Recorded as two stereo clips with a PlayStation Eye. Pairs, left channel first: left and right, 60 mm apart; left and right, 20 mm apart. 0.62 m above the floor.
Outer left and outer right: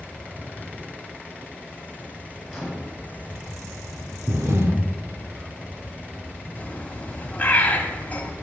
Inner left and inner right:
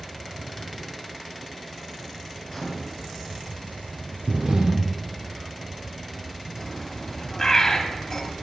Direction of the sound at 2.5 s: 5° right (ahead or behind).